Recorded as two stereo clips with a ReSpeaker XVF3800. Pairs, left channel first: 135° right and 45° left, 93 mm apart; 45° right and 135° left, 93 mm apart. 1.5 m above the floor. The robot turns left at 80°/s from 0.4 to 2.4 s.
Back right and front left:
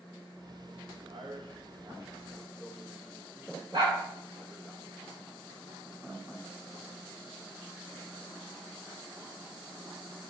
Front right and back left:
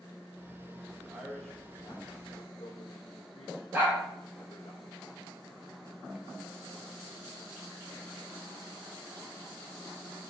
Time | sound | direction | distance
1.0 | a man speaking | 80° left | 1.0 m
3.7 | a dog barking | 70° left | 3 m